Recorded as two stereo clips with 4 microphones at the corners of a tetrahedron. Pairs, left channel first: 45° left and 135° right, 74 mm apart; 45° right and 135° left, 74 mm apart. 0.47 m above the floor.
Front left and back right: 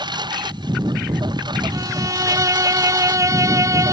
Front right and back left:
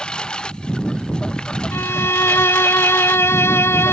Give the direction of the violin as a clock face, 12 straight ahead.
3 o'clock.